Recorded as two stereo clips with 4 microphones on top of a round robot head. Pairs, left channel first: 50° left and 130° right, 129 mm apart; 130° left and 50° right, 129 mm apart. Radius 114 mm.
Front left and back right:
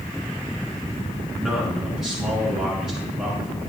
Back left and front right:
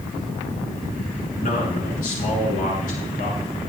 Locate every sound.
1.4 s a man speaking: 145° left, 8 m